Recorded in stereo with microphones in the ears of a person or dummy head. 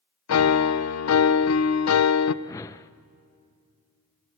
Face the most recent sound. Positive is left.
turn(degrees=20)  # may be behind; listen again after turning